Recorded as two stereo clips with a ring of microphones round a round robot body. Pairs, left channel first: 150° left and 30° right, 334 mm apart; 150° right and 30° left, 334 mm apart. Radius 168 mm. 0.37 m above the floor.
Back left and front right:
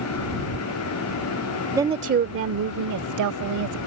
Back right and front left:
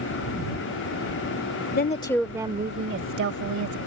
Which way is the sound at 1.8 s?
105° right.